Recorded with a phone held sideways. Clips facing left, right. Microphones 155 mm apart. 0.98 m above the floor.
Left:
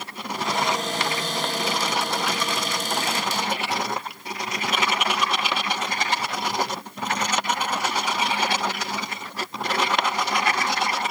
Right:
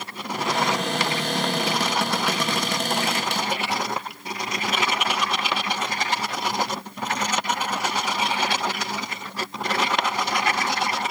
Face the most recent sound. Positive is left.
turn(degrees=-65)  # may be behind; listen again after turning